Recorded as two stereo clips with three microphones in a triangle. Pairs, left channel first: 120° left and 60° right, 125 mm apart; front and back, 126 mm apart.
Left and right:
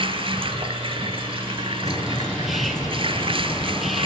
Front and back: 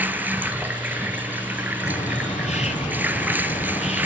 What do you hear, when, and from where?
0.0 s running water: 105° right, 0.9 m
1.8 s a bird: 30° left, 1.9 m